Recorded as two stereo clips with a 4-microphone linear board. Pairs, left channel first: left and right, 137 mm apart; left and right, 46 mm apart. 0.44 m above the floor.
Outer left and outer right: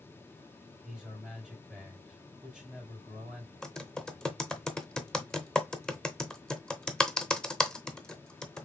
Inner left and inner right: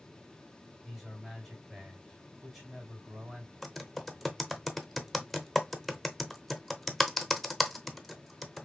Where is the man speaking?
5° right (ahead or behind), 3.5 m.